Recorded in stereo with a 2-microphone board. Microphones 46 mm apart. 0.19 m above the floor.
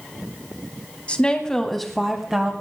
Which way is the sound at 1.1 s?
25° left (ahead or behind).